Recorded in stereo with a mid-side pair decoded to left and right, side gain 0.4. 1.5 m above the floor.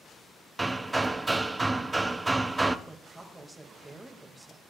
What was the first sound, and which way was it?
Hammering, 15° right.